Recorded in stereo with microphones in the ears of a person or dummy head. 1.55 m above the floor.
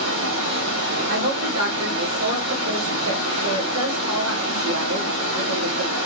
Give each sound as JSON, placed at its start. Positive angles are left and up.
{"t": 0.0, "sound": "running water", "side_deg": -60, "distance_m": 2.0}
{"t": 1.1, "sound": "a woman speaking", "side_deg": -80, "distance_m": 1.5}